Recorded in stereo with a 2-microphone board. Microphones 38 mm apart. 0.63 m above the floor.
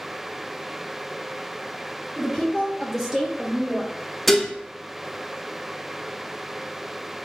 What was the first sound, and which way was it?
A woman speaking, 20° left (ahead or behind).